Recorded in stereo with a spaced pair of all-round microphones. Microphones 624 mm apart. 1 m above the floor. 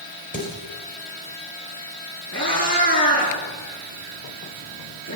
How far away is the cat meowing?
About 8 m.